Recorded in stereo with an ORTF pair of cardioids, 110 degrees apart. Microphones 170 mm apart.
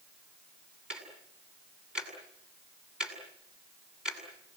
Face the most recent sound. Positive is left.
turn(degrees=-5)